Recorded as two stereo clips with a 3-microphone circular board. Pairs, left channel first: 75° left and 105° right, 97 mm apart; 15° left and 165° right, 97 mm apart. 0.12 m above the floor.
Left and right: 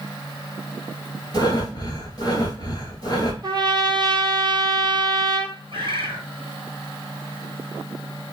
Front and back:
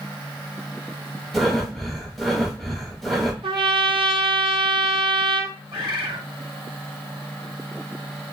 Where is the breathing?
100° left, 1.1 m.